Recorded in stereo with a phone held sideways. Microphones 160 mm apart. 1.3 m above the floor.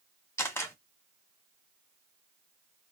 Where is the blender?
No blender in this recording.